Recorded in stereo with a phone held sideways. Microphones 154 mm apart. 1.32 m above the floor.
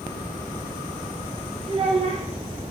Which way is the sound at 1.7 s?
40° right (ahead or behind).